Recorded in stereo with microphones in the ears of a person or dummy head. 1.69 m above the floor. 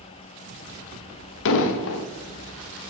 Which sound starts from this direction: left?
An explosion, at 1.4 s.